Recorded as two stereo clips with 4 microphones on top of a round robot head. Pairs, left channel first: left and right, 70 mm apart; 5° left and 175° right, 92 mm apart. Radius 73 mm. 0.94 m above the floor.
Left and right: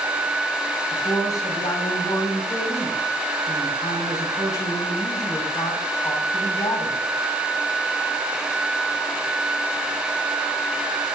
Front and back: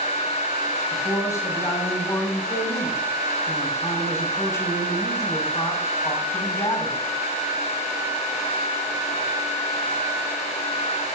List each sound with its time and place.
0.9 s a man speaking: 60° left, 5.5 m